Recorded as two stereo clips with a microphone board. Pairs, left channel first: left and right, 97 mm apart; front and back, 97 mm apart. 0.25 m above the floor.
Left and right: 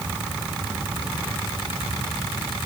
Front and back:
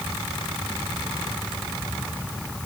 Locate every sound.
Only background noise.